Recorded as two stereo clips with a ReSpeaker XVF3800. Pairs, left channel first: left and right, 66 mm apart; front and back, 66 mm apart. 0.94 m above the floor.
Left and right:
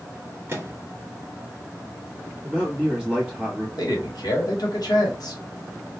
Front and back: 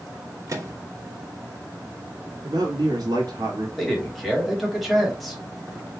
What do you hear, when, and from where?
0.5 s a microwave: 140° right, 0.9 m
2.4 s a man speaking: 165° right, 1.4 m
3.8 s a man speaking: 90° left, 1.5 m